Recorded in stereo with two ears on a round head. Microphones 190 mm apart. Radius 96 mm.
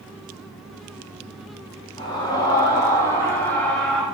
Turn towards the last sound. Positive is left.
turn(degrees=0)  # may be behind; listen again after turning